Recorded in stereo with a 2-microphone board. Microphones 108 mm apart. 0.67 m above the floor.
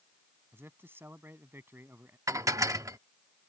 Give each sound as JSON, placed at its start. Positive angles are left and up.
{"t": 0.5, "sound": "a man speaking", "side_deg": -20}
{"t": 2.3, "sound": "dishes clattering", "side_deg": -30}